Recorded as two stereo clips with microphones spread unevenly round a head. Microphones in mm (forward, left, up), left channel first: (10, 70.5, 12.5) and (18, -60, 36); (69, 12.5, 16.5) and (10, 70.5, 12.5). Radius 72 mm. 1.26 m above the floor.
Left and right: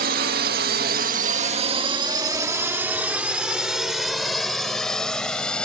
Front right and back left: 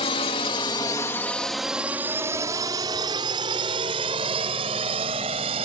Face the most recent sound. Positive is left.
turn(degrees=180)